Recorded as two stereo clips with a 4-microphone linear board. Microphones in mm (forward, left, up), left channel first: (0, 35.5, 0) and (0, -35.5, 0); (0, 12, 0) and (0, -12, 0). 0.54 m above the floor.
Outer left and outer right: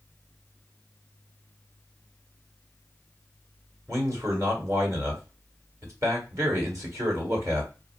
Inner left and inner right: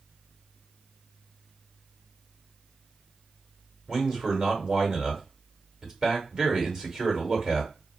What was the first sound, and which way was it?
A man speaking, 45° right (ahead or behind).